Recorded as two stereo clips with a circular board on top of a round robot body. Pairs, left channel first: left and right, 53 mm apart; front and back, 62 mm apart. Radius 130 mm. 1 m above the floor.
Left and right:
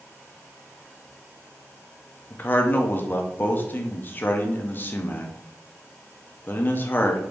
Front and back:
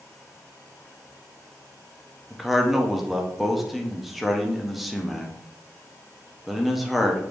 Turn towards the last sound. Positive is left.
turn(degrees=95)